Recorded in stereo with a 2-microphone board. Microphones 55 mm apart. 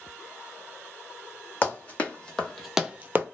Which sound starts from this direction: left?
Running footsteps, at 1.6 s.